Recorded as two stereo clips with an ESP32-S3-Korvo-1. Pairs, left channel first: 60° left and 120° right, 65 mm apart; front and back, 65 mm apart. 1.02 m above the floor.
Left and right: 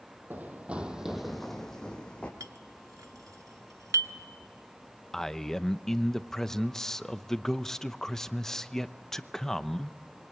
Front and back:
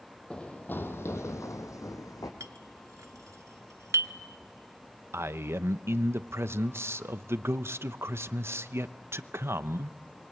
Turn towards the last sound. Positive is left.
turn(degrees=140)